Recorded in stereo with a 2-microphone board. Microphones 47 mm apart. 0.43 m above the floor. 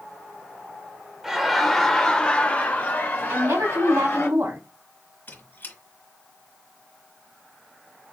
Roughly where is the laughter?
Centre.